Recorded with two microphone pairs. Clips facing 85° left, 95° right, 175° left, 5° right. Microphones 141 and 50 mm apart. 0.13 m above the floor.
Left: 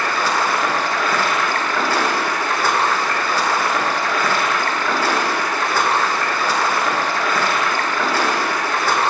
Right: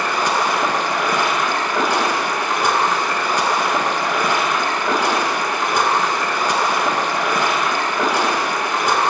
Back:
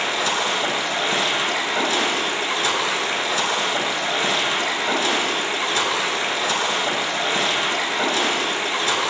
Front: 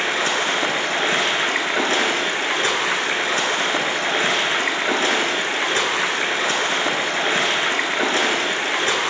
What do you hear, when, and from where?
0.0 s running water: 25° right, 0.7 m